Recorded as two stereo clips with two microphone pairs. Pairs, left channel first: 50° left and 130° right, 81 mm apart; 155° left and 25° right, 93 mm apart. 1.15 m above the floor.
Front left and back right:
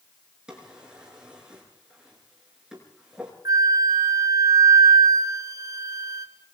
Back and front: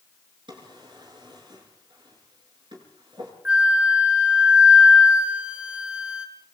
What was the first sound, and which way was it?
A drawer, 50° right.